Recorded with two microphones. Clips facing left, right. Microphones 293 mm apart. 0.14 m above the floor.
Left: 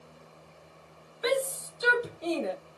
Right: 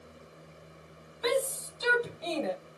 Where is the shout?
15° left (ahead or behind), 4 m; by 2.5 s 10° left (ahead or behind), 3 m.